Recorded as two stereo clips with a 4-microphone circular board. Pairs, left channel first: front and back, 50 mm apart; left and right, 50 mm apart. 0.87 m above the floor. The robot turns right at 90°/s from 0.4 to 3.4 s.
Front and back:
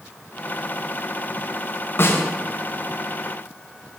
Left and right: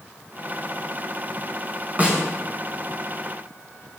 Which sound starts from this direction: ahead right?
A snare drum, at 2.0 s.